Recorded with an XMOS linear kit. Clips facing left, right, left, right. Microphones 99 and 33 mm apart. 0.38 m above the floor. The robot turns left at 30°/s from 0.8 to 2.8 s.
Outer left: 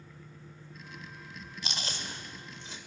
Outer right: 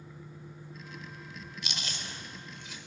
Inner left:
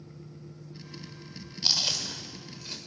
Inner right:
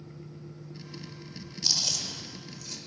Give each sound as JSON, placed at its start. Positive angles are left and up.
{"t": 1.6, "sound": "chewing", "side_deg": 35, "distance_m": 1.5}